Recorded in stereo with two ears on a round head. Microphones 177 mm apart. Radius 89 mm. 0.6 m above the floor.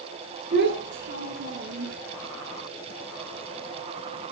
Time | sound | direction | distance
0.5 | a child speaking | 55° right (ahead or behind) | 6 m